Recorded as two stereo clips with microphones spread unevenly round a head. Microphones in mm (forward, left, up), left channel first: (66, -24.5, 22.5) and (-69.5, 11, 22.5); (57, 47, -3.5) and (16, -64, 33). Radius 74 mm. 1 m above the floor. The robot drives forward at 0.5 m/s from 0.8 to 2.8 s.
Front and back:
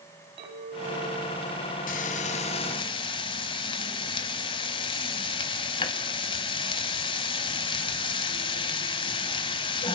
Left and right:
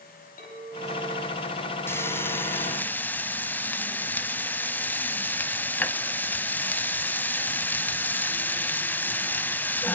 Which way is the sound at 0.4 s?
110° left.